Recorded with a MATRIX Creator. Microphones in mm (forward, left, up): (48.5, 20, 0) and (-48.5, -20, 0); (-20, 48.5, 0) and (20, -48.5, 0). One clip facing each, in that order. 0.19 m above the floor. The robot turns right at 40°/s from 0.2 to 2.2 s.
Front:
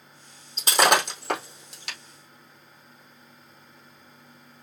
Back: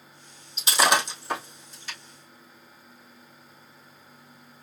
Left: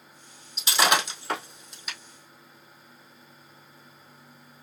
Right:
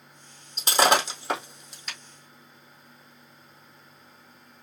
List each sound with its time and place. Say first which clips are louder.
0.6 s breaking glass: front 2 dB, right 3 dB; 25° right, 2.5 m; by 2.0 s 30° left, 2.5 m